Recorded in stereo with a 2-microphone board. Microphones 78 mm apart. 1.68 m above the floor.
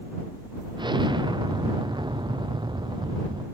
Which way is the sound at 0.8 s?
65° right (ahead or behind).